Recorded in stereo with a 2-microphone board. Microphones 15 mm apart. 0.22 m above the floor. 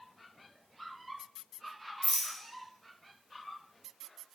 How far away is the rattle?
About 1.3 m.